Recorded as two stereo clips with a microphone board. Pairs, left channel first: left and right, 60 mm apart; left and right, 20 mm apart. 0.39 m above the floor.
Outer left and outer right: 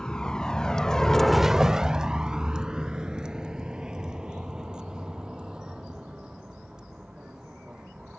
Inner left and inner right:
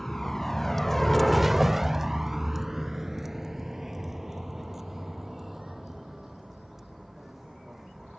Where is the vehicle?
15° left (ahead or behind); by 8.2 s 15° right (ahead or behind).